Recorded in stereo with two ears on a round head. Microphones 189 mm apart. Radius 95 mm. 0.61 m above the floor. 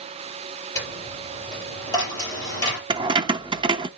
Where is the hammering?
No hammering in this recording.